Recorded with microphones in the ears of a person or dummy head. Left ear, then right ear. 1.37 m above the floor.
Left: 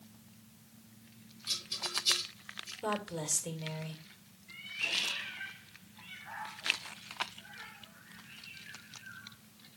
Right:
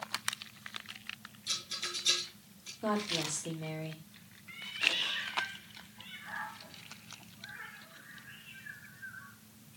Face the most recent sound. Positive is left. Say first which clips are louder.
# right 3 dB
turn(degrees=-5)  # may be behind; listen again after turning